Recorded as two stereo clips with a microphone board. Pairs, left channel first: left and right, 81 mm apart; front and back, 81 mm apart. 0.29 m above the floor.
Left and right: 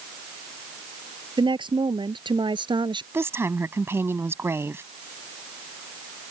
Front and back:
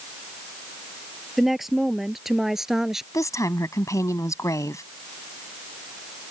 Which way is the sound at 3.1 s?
40° right.